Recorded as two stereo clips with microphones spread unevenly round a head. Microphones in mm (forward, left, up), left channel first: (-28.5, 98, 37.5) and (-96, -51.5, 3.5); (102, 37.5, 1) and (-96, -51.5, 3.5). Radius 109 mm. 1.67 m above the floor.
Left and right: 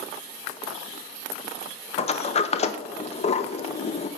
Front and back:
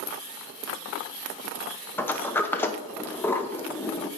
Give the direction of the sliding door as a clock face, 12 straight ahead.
9 o'clock.